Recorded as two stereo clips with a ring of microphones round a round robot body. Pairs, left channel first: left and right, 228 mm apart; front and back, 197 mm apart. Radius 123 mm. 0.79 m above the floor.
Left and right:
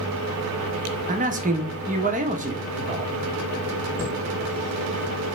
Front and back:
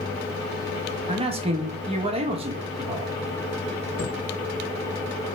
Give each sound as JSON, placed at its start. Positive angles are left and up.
{"t": 1.1, "sound": "a man speaking", "azimuth_deg": -130, "distance_m": 0.8}
{"t": 4.0, "sound": "a chime", "azimuth_deg": -15, "distance_m": 2.0}